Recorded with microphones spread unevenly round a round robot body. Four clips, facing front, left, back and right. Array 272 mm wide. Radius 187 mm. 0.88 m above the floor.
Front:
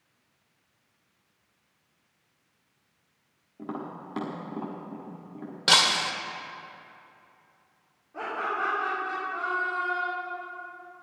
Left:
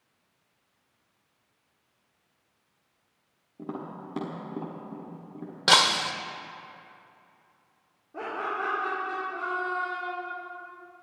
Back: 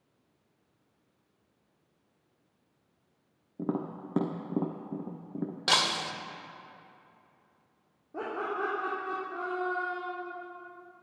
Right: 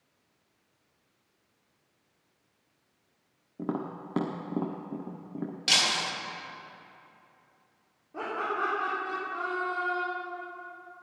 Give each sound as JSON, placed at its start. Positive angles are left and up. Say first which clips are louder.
{"t": 3.6, "sound": "tapping", "louder": "right 3 dB, back 3 dB", "azimuth_deg": -155, "distance_m": 0.9}
{"t": 5.7, "sound": "breaking glass", "louder": "left 9 dB, front 5 dB", "azimuth_deg": 65, "distance_m": 1.4}
{"t": 8.1, "sound": "laughter", "louder": "even, front 3 dB", "azimuth_deg": -175, "distance_m": 3.0}